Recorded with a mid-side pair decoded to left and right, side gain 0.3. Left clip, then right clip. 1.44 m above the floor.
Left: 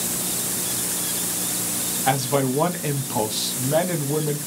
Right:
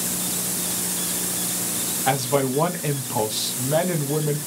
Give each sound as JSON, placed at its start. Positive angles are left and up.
{"t": 2.1, "sound": "a man speaking", "azimuth_deg": 0, "distance_m": 0.7}